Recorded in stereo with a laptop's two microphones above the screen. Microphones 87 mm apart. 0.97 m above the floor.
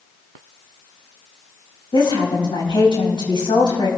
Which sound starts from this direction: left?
A woman speaking, at 1.9 s.